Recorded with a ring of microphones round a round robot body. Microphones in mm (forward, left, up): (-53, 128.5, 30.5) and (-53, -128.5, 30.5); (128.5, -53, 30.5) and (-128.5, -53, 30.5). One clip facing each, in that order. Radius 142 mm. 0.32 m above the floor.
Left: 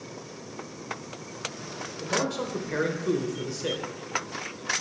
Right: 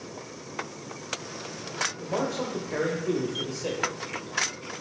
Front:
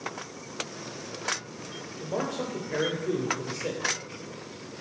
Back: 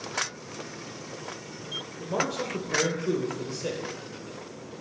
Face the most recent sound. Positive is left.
turn(degrees=110)